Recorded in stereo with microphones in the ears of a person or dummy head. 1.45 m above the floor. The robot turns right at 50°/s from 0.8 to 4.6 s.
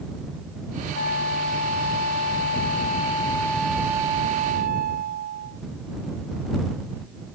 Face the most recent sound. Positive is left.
turn(degrees=-130)